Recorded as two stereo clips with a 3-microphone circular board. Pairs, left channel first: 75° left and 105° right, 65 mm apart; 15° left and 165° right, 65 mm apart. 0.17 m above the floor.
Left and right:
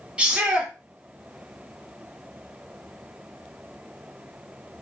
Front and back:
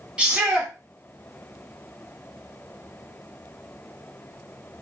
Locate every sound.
0.2 s a shout: 125° right, 1.2 m